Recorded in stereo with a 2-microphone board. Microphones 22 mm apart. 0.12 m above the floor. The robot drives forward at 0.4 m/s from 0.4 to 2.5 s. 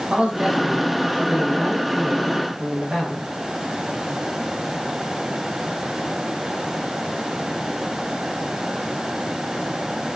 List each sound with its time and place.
0.1 s a man speaking: 50° right (ahead or behind), 5 m; by 3.3 s 45° right (ahead or behind), 5.5 m